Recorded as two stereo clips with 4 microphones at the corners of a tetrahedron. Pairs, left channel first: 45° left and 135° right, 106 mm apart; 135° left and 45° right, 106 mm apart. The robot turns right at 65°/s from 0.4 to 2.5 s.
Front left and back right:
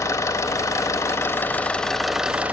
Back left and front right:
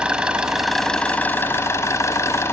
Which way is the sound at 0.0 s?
25° left.